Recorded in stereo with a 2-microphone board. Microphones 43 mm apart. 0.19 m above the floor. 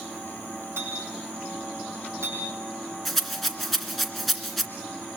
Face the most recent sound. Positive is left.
turn(degrees=5)  # may be behind; listen again after turning